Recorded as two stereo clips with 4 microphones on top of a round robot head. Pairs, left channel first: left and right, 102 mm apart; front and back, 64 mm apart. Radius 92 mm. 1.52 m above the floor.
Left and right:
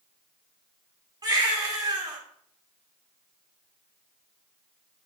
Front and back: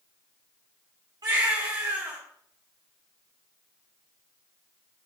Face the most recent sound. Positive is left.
turn(degrees=-140)